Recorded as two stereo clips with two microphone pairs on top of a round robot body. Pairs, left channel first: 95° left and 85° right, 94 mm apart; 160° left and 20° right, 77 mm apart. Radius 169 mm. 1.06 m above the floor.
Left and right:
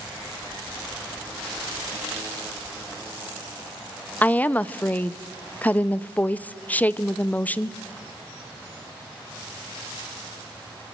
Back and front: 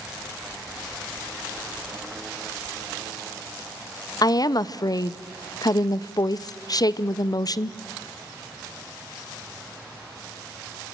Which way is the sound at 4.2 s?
160° left.